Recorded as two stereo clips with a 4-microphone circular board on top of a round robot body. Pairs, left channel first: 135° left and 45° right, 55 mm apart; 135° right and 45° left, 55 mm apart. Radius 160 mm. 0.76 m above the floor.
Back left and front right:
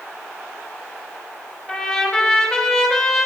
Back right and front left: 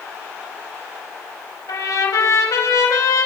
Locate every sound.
1.7 s a trumpet: 140° right, 4 m